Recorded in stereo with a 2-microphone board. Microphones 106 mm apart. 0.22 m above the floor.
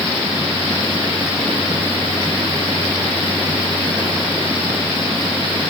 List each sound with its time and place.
Only background noise.